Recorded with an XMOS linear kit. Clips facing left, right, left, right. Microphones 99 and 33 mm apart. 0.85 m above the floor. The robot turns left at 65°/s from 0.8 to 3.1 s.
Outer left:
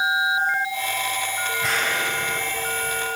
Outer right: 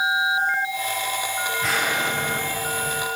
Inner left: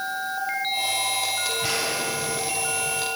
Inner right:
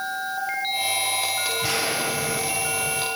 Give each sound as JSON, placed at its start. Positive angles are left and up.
{"t": 1.6, "sound": "an explosion", "azimuth_deg": 5, "distance_m": 4.0}